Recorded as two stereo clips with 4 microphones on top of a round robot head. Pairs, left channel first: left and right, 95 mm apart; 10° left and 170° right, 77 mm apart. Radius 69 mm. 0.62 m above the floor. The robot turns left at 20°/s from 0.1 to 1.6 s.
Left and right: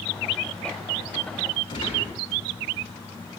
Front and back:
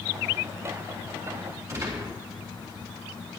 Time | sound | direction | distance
1.7 | a gunshot | 140° left | 8 m